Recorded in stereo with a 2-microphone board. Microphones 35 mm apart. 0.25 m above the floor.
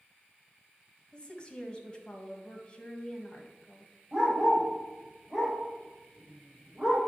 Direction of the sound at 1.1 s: 20° left (ahead or behind).